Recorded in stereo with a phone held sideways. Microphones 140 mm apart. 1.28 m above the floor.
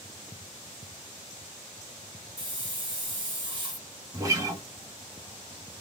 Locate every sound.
2.4 s a hiss: 35° right (ahead or behind), 1.1 m
4.1 s a guitar: 25° right (ahead or behind), 1.1 m